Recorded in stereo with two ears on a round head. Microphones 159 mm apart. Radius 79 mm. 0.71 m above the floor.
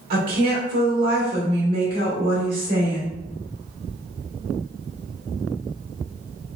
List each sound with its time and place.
0.1 s a woman speaking: 55° right (ahead or behind), 1.8 m